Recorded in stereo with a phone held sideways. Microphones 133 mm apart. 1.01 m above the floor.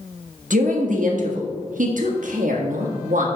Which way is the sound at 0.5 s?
80° right.